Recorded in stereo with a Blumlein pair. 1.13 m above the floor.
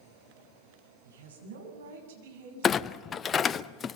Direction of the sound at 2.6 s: 20° left.